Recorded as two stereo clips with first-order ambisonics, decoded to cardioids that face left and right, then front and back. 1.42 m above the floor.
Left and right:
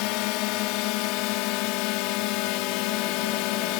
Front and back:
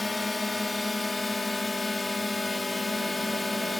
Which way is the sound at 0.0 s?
80° left.